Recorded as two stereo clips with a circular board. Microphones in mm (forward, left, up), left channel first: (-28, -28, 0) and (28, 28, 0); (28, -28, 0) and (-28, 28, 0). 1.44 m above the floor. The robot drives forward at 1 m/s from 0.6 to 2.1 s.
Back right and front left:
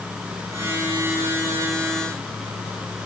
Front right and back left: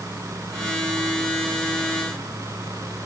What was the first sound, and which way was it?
Only background noise.